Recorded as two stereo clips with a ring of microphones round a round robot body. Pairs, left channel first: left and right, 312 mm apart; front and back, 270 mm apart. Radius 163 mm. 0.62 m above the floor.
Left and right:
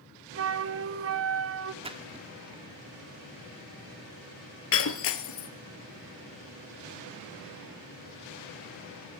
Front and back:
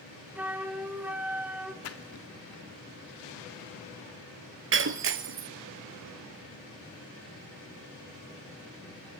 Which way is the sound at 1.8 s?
20° right.